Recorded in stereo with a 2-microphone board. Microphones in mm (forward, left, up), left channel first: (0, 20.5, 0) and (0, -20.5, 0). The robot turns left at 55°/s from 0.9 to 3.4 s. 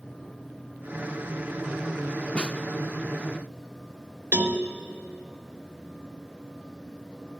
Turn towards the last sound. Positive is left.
turn(degrees=-60)  # may be behind; listen again after turning